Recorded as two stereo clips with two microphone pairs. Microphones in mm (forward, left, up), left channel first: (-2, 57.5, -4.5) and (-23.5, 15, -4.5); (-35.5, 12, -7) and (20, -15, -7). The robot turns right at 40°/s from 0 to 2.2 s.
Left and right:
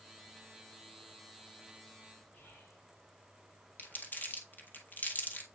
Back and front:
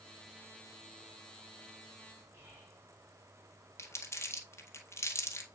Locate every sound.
2.3 s whispering: 25° left, 3.5 m
3.8 s crumpling: 110° left, 1.7 m